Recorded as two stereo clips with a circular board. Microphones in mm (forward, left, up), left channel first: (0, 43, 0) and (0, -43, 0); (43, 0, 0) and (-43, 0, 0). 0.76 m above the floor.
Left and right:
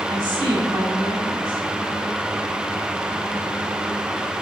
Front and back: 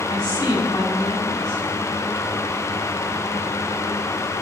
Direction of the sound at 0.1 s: 45° right.